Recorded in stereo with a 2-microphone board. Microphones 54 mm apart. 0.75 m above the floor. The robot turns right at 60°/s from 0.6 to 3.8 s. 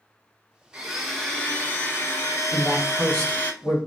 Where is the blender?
20° right, 0.8 m; by 3.5 s 145° left, 0.8 m.